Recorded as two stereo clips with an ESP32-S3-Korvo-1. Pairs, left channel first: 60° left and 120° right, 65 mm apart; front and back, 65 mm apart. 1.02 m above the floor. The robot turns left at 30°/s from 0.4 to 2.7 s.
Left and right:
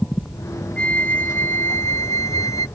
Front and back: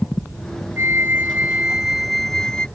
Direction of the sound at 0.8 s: 130° left.